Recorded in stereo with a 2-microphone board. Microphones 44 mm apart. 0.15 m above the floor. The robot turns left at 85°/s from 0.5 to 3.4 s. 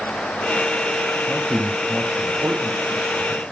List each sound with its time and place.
1.3 s a man speaking: 10° left (ahead or behind), 4.5 m; by 3.4 s 10° right (ahead or behind), 4.5 m